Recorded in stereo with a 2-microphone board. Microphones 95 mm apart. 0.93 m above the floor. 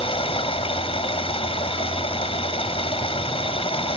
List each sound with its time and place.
0.0 s running water: 75° left (ahead or behind)